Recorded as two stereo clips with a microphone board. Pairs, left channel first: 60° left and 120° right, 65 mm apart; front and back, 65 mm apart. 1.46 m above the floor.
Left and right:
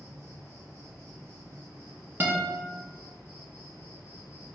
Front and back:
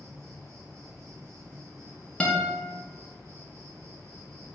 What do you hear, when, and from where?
0.0 s an insect: 165° right, 1.2 m
2.2 s a guitar: 70° right, 0.6 m